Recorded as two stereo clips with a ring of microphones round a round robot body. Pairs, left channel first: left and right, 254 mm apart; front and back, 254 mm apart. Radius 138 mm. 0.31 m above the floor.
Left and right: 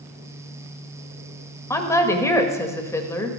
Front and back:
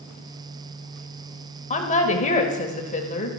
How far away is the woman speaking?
About 1.5 m.